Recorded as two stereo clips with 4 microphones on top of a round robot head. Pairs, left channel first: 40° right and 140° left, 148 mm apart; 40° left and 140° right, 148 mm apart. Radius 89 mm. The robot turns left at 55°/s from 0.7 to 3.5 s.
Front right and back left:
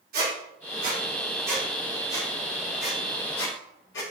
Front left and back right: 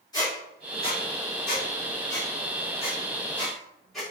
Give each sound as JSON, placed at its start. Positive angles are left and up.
{"t": 0.1, "sound": "a squeak", "azimuth_deg": 110, "distance_m": 3.0}